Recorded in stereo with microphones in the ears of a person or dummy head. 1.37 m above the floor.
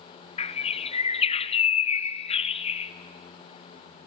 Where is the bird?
35° left (ahead or behind), 0.5 m.